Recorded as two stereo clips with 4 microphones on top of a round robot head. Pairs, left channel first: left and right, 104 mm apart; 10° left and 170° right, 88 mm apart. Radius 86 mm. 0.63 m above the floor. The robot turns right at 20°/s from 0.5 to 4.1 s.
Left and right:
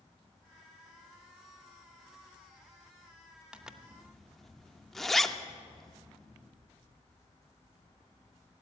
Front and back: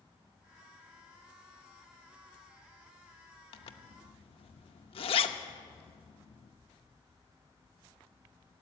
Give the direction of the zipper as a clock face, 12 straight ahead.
12 o'clock.